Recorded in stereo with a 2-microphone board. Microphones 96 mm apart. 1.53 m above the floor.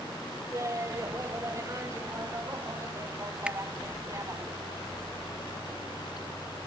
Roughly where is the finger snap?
Centre.